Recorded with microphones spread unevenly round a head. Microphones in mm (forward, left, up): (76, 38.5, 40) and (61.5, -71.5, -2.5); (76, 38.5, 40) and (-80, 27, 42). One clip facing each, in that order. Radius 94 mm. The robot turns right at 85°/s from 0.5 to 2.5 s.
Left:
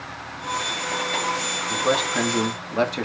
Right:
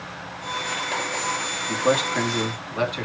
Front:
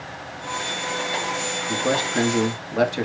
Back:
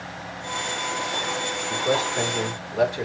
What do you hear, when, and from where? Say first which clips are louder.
1.7 s a man speaking: right 1 dB, front 1 dB; 40° right, 1.8 m; by 3.0 s 30° left, 1.8 m